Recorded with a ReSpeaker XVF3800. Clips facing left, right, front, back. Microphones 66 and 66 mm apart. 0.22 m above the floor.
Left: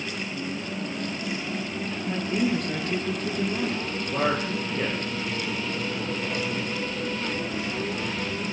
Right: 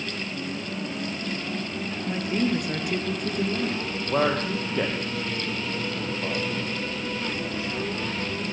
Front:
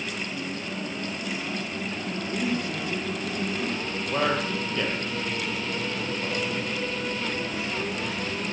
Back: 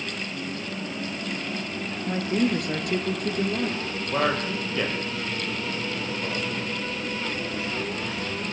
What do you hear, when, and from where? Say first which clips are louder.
2.1 s a woman speaking: even, back 5 dB; 170° right, 5 m
4.1 s a man speaking: right 2 dB, back 1 dB; 95° right, 9.5 m